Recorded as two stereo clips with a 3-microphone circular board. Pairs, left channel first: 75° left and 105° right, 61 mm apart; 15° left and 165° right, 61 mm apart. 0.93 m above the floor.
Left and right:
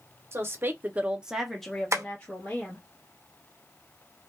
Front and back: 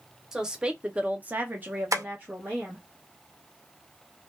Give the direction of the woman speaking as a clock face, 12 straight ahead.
3 o'clock.